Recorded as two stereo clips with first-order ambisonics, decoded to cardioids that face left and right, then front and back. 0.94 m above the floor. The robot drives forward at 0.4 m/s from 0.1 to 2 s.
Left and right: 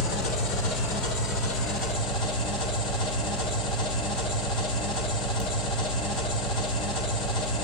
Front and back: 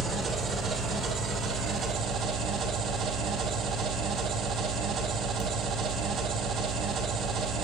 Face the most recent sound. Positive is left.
turn(degrees=120)